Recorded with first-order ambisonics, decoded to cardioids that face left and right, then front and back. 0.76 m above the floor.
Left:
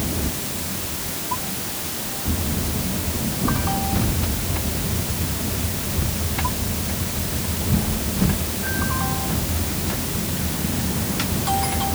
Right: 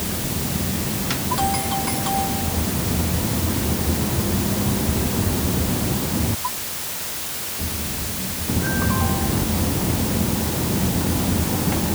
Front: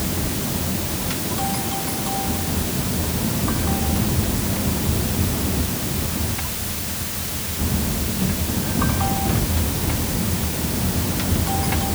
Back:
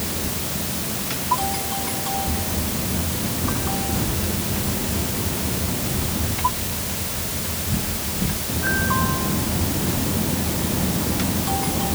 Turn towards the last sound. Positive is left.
No sound to turn to.